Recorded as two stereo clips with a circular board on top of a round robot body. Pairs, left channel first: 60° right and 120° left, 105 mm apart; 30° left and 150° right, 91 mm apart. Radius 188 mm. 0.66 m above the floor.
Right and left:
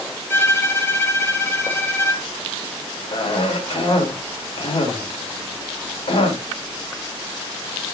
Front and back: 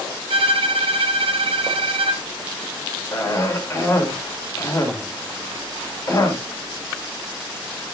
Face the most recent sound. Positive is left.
turn(degrees=-30)